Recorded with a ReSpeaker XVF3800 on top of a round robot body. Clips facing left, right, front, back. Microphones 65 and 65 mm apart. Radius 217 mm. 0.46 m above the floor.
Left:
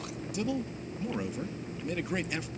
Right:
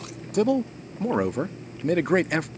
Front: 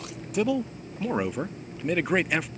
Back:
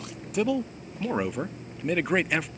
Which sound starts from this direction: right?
A man speaking, at 0.3 s.